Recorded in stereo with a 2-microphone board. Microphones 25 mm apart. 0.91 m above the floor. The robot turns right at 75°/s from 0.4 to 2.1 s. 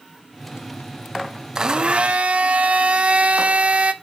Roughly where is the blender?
Behind right.